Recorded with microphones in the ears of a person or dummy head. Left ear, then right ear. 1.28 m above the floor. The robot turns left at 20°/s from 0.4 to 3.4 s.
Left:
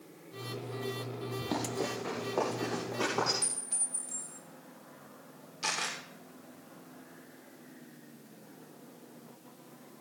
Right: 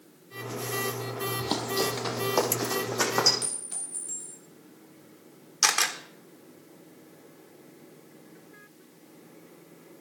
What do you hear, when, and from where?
1.4 s running footsteps: 45° right (ahead or behind), 2.5 m; by 3.3 s 65° right (ahead or behind), 4 m
3.4 s a clink: 20° right (ahead or behind), 3 m
5.6 s a camera shutter: 60° right (ahead or behind), 1.4 m